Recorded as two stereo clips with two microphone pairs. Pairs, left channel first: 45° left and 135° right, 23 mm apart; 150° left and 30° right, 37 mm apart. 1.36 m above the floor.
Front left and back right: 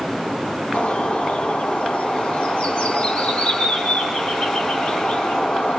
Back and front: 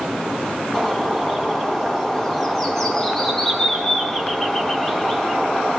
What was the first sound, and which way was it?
A bird, 75° left.